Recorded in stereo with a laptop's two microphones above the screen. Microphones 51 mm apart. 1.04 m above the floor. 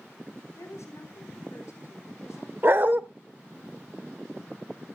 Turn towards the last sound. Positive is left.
turn(degrees=-45)  # may be behind; listen again after turning